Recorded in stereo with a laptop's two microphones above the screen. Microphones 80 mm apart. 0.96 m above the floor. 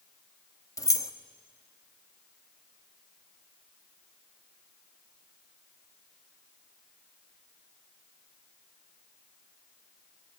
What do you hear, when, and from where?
0.8 s keys jangling: 45° left (ahead or behind), 0.9 m